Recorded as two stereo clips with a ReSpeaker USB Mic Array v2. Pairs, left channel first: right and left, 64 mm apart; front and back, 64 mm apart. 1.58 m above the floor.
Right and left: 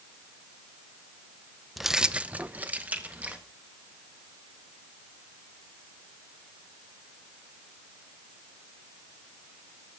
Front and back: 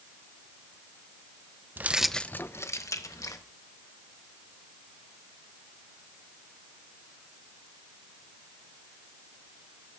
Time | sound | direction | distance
1.8 | keys jangling | 170° left | 0.6 m